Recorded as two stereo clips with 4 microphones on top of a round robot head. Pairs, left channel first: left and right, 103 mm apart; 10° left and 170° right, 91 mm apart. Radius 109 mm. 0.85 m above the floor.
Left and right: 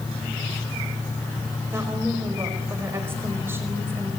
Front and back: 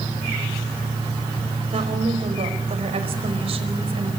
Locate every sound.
1.7 s a woman speaking: 160° right, 4.5 m